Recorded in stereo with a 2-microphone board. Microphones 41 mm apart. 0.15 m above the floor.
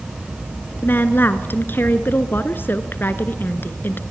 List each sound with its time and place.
0.8 s a woman speaking: 50° left (ahead or behind), 1.7 m